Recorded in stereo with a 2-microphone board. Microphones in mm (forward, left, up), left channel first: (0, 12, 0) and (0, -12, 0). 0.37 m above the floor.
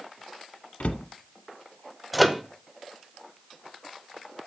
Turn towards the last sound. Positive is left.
turn(degrees=0)  # may be behind; listen again after turning